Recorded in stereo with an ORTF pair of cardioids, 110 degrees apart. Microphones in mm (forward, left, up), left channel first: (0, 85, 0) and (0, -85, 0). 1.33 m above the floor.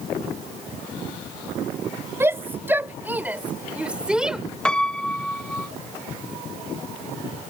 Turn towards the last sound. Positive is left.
turn(degrees=5)